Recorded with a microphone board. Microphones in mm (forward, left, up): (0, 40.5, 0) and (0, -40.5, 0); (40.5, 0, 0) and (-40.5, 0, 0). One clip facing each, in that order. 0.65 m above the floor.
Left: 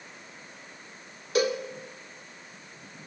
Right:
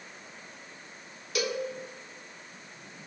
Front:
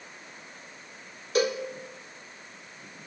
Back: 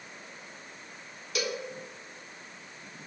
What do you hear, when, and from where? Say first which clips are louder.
1.4 s a cowbell: left 5 dB, front 8 dB; 45° left, 1.8 m